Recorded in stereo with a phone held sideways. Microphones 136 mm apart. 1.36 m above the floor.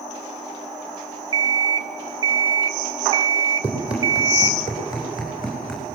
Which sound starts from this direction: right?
An alarm clock, at 1.3 s.